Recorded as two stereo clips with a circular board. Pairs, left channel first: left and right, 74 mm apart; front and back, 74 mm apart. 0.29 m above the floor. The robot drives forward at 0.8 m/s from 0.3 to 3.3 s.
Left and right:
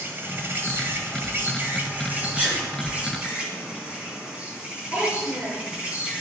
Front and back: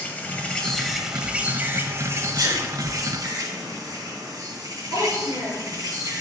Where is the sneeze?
160° right, 4.5 m.